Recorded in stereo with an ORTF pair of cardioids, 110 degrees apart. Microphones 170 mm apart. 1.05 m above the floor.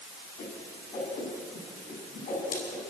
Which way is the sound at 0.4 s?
55° left.